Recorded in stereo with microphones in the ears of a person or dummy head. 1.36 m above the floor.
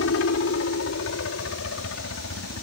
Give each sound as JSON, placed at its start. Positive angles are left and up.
{"t": 0.0, "sound": "a helicopter", "side_deg": 65}